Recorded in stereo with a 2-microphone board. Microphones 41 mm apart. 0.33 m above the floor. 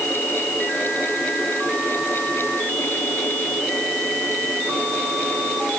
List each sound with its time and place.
Only background noise.